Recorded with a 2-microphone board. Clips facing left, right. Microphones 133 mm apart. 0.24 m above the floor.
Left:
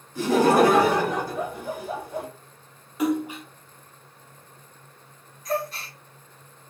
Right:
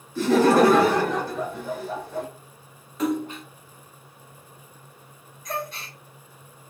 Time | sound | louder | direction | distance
0.1 | laughter | right 1 dB | 15° left (ahead or behind) | 1.3 m
3.0 | a splash | left 1 dB | 10° left (ahead or behind) | 1.2 m
5.5 | a gasp | left 4 dB | 5° left (ahead or behind) | 1.0 m